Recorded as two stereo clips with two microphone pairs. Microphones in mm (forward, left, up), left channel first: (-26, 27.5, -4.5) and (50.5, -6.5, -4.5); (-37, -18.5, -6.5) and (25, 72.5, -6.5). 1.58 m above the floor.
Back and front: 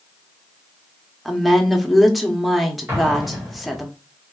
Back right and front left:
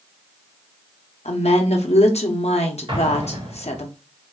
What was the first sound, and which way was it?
A woman speaking, 115° right.